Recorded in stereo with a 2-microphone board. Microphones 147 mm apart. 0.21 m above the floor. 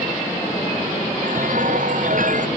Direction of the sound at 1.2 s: 65° right (ahead or behind).